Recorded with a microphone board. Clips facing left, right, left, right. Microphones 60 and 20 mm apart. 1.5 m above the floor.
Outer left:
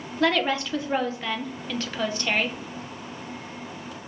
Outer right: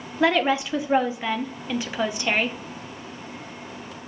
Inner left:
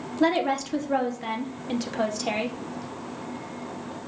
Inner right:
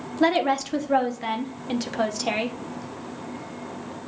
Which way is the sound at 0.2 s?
15° right (ahead or behind).